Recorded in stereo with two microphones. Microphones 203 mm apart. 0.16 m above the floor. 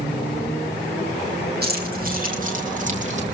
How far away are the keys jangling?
About 3.5 m.